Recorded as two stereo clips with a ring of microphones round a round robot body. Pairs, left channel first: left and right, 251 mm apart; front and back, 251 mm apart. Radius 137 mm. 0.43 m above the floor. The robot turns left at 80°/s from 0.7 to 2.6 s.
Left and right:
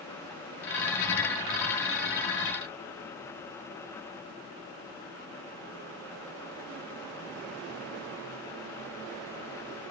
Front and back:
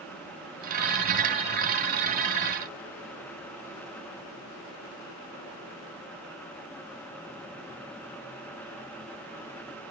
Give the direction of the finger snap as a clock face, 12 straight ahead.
No finger snap in this recording.